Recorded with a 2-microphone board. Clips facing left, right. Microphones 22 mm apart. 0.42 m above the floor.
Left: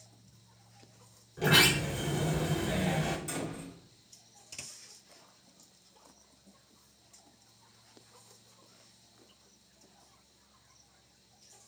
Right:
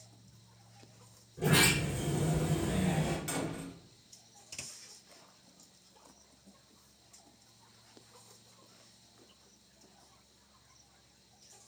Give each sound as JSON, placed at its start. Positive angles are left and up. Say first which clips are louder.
{"t": 1.4, "sound": "a sliding door", "louder": "left 3 dB", "side_deg": 55, "distance_m": 0.6}
{"t": 3.3, "sound": "a door slam", "louder": "right 1 dB", "side_deg": -45, "distance_m": 1.4}